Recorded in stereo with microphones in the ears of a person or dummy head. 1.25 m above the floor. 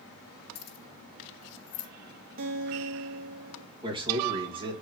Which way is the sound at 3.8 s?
25° right (ahead or behind).